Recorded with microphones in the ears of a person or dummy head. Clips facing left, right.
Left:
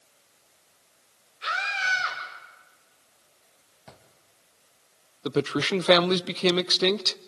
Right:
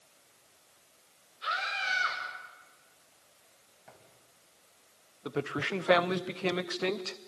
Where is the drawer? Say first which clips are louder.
Left 5 dB; 55° left (ahead or behind), 2.5 m.